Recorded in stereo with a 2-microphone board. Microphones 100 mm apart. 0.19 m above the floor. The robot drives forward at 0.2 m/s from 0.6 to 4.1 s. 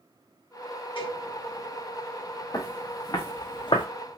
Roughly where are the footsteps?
Left.